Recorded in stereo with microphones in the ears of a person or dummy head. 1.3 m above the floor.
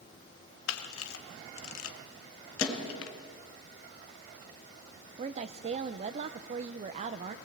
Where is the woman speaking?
35° right (ahead or behind), 0.6 m.